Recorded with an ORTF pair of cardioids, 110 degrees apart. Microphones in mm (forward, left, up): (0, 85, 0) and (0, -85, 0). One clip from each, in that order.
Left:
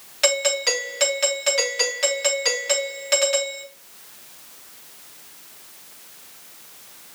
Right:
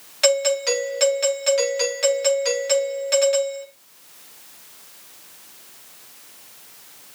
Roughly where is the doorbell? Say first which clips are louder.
Right 2 dB; ahead.